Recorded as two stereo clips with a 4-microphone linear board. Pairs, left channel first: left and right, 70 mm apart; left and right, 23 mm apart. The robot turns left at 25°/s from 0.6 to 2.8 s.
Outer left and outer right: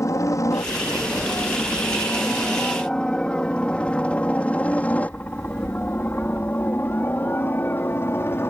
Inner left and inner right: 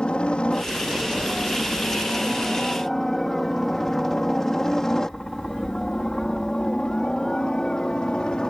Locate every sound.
0.0 s a helicopter: 50° left (ahead or behind); by 8.5 s 35° left (ahead or behind)